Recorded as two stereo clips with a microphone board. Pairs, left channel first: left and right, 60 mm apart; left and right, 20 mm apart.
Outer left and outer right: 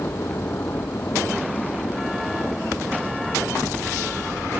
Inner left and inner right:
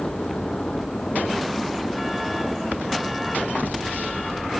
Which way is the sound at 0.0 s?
40° left (ahead or behind).